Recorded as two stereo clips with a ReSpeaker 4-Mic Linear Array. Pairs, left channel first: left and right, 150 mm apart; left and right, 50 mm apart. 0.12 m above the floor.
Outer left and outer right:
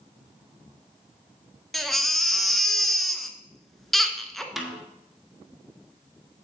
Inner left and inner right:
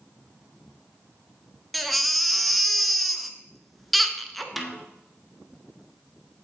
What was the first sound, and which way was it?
A baby crying, centre (ahead or behind).